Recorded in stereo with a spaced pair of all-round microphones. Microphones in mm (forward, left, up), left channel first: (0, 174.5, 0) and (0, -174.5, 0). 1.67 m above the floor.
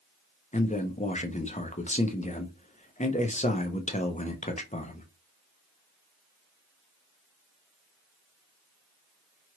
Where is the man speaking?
20° left (ahead or behind), 0.6 m.